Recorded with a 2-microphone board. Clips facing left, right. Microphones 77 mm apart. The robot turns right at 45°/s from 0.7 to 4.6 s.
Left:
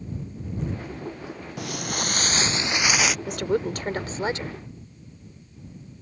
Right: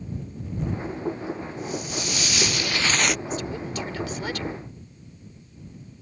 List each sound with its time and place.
1.6 s footsteps: 75° left (ahead or behind); by 3.2 s centre (ahead or behind)
3.3 s a woman speaking: 105° left; by 4.5 s 160° left